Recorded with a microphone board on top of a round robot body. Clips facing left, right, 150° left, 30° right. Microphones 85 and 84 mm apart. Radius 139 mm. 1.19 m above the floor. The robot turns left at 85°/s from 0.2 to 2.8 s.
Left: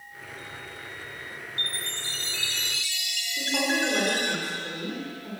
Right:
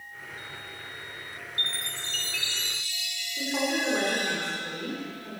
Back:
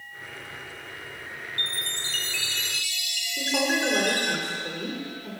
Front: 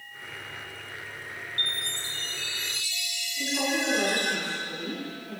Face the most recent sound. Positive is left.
turn(degrees=175)